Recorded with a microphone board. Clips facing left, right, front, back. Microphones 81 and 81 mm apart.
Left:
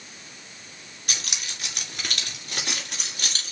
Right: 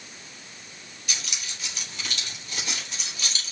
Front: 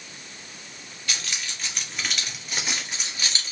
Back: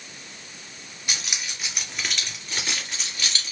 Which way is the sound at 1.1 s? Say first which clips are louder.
Left 1 dB, even; 110° left.